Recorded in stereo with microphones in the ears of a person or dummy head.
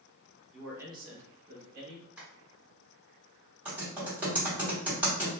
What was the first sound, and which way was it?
A man speaking, 5° left (ahead or behind).